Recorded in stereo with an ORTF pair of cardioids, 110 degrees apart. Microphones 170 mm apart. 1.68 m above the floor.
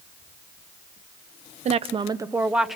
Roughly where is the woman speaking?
Ahead right.